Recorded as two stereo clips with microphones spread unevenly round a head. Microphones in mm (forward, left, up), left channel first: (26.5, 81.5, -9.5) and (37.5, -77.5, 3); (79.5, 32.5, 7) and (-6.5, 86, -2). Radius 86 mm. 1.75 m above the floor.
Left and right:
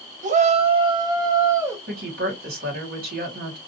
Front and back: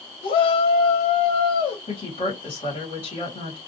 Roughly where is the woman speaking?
Right.